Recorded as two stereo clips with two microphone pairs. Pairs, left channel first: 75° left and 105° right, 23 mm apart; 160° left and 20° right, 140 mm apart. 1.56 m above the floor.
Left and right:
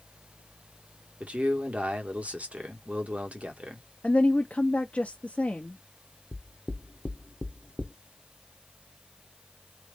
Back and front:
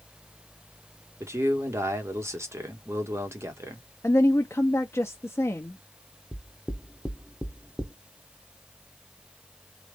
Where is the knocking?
60° left, 1.0 m.